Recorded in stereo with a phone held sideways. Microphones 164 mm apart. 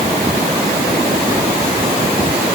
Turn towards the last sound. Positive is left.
No sound to turn to.